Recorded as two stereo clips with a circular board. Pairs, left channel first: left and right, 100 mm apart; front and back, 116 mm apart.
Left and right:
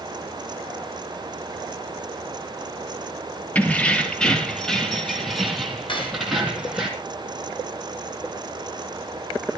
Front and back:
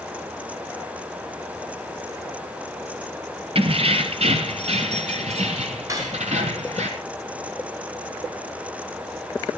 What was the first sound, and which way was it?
Keys jangling, 165° left.